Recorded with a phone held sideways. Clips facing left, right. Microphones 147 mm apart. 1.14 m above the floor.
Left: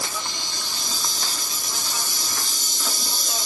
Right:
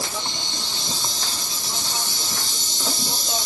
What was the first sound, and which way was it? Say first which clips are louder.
An insect: right 2 dB; 30° right (ahead or behind).